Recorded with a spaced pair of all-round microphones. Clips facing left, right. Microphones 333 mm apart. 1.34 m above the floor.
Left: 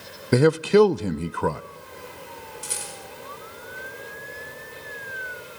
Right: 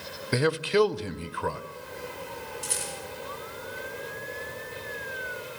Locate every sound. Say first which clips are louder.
0.3 s a man speaking: left 7 dB; 60° left (ahead or behind), 0.5 m
2.6 s a rattle: right 2 dB; 5° left (ahead or behind), 4.5 m